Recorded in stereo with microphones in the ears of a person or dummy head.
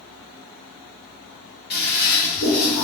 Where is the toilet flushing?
45° left (ahead or behind), 1.1 m.